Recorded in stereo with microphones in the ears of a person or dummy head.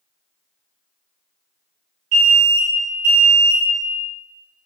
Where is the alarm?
80° right, 1.9 m.